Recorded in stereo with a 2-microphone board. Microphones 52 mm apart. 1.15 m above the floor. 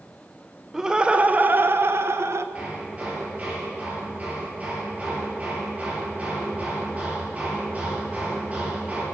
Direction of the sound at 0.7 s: 10° right (ahead or behind).